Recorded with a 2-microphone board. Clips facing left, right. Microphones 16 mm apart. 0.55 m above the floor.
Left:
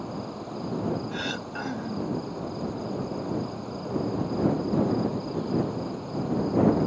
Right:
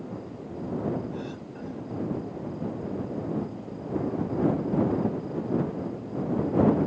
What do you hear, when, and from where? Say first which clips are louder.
0.0 s an insect: left 3 dB; 60° left (ahead or behind)
1.1 s throat clearing: left 5 dB; 80° left